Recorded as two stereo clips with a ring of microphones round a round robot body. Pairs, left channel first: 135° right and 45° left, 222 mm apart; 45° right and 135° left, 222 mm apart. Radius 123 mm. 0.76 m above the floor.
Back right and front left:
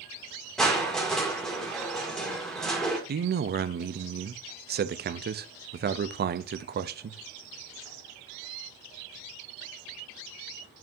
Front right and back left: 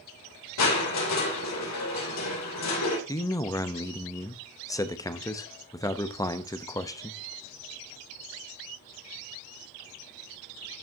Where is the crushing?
45° right, 3 m.